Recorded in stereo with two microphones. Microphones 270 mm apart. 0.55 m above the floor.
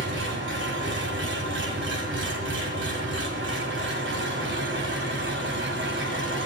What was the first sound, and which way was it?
An engine running, 45° right (ahead or behind).